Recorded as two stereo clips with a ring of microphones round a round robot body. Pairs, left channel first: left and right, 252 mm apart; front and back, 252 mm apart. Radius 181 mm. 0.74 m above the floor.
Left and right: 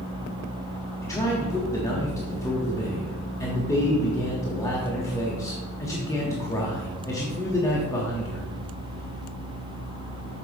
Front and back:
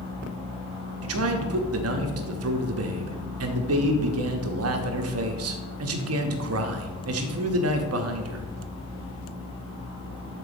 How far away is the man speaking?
About 0.9 m.